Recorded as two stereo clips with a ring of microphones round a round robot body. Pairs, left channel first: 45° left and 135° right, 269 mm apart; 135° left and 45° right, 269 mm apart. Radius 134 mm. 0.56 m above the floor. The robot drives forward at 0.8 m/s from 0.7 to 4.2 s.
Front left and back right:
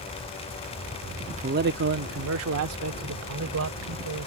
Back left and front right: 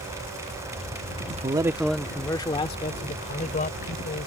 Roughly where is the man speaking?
Right.